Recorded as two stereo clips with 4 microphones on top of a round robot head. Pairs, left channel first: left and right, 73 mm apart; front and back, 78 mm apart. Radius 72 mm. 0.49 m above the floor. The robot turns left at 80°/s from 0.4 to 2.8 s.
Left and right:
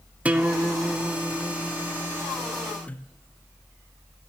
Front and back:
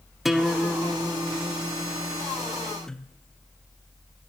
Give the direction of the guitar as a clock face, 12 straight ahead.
3 o'clock.